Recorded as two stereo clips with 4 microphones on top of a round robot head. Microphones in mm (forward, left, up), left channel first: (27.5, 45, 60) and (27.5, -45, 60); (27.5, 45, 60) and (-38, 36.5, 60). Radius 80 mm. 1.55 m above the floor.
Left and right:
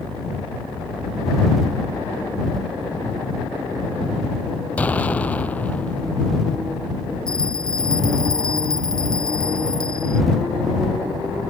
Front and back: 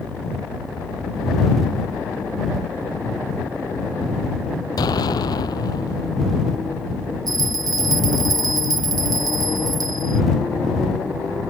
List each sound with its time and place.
4.8 s an explosion: 20° left
7.3 s a bell: 175° left